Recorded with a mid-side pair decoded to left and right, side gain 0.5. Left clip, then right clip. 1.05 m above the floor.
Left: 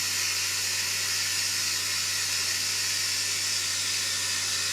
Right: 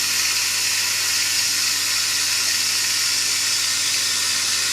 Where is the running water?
55° right, 1.2 m.